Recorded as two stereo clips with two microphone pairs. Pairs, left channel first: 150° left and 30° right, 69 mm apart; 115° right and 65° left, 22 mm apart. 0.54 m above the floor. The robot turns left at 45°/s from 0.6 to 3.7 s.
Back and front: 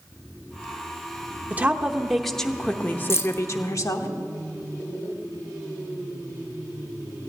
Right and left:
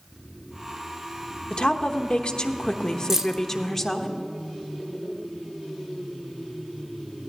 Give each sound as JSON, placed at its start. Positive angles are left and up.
{"t": 1.5, "sound": "a woman speaking", "azimuth_deg": -85, "distance_m": 1.0}
{"t": 3.1, "sound": "keys jangling", "azimuth_deg": 125, "distance_m": 0.6}